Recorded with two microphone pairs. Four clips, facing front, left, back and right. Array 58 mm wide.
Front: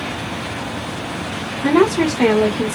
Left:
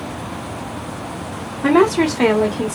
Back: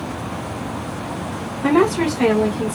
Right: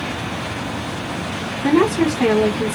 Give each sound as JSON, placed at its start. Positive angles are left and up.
{"t": 1.6, "sound": "a woman speaking", "azimuth_deg": 95, "distance_m": 1.4}